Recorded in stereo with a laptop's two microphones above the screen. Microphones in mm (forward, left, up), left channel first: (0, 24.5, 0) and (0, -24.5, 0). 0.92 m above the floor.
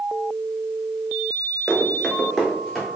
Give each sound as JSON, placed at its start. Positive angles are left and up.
{"t": 1.7, "sound": "running footsteps", "side_deg": -5, "distance_m": 0.9}